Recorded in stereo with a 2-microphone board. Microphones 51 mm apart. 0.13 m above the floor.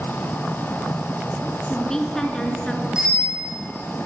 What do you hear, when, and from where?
1.6 s a woman speaking: 10° left (ahead or behind), 1.5 m; by 2.9 s 15° left (ahead or behind), 2.0 m
3.0 s a bicycle bell: 15° right (ahead or behind), 5.5 m